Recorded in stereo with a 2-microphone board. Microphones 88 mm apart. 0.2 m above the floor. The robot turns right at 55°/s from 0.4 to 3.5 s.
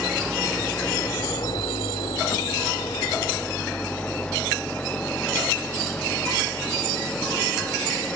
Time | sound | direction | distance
0.0 | an engine running | 5° right | ?